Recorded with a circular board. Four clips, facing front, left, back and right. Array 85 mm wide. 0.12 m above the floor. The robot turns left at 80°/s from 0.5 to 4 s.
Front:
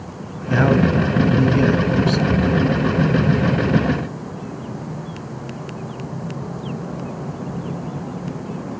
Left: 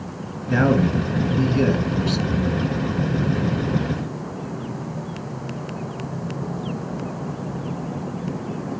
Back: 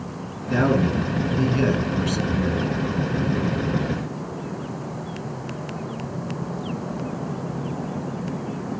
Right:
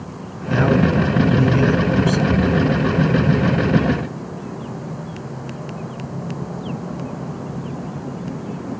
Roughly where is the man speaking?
Ahead.